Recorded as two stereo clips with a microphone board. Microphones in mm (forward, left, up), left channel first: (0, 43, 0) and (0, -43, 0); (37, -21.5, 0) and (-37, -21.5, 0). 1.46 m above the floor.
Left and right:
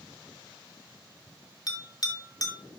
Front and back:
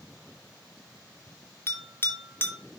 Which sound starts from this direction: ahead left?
A bell, at 1.7 s.